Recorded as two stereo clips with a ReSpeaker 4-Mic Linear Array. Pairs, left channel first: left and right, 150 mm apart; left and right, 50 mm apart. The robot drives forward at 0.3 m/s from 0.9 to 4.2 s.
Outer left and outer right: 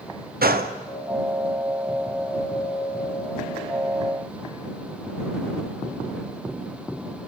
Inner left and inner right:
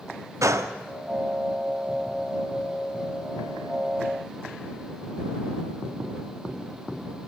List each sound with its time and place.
0.4 s a gunshot: 85° right, 0.8 m